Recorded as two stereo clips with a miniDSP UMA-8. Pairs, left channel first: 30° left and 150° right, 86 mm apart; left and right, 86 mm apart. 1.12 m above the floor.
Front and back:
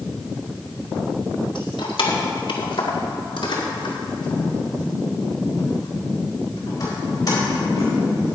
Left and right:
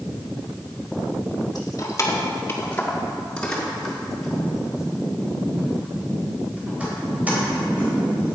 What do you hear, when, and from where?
1.6 s keys jangling: 45° left, 1.6 m; by 8.3 s 20° right, 5 m